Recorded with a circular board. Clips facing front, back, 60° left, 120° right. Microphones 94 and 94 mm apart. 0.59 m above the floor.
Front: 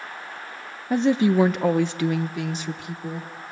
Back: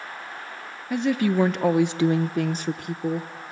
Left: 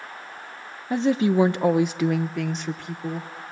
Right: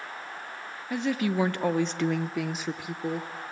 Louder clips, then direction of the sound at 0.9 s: Front 3 dB, left 7 dB; 25° left.